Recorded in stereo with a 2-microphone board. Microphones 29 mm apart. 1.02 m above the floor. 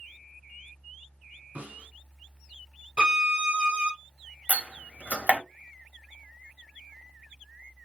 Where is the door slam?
55° right (ahead or behind), 1.3 m.